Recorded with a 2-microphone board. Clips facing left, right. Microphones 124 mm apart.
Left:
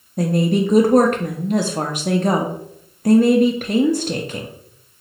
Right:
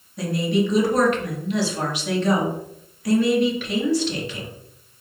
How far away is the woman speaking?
About 0.5 m.